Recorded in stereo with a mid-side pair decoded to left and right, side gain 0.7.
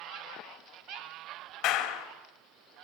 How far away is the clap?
About 4 m.